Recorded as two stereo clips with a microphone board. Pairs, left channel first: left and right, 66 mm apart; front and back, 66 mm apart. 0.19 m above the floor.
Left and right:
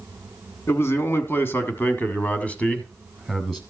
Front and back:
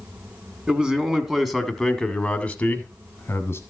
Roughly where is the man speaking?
Left.